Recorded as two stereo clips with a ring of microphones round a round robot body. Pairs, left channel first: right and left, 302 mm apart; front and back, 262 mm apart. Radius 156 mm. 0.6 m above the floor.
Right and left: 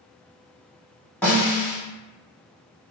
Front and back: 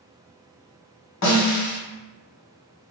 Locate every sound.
1.2 s a snare drum: 5° right, 1.6 m